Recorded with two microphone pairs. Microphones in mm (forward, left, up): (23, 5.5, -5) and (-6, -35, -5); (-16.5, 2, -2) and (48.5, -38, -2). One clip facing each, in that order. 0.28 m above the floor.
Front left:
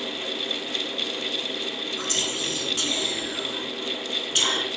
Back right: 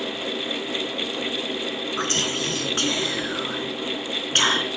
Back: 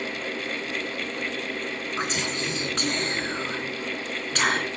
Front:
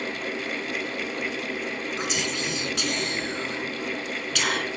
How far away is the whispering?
About 3 m.